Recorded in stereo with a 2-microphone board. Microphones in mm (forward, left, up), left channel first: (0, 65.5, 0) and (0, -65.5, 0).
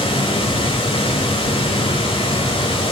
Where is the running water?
40° left (ahead or behind), 1.3 m.